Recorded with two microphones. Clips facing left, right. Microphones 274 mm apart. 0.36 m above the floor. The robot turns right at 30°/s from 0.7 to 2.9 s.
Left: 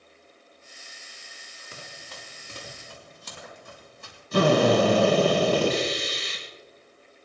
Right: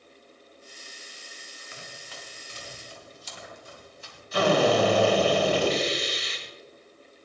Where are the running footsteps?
40° left (ahead or behind), 4 m; by 4.2 s 60° left (ahead or behind), 6 m.